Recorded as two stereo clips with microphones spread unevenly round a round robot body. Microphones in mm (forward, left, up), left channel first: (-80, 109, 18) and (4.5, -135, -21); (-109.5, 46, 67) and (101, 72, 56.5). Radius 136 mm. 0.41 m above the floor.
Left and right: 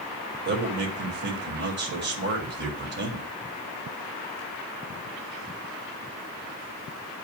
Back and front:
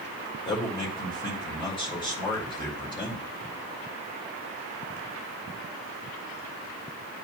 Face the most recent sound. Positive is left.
turn(degrees=-105)